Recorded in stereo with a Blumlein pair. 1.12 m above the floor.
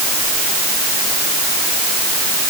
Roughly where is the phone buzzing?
I don't hear a phone buzzing.